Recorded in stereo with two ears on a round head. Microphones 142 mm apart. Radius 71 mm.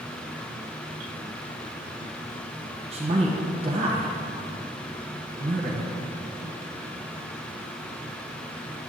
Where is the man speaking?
40° right (ahead or behind), 1.2 m.